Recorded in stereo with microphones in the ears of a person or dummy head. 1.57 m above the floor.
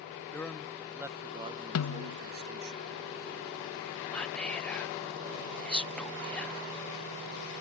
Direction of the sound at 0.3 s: 10° left (ahead or behind).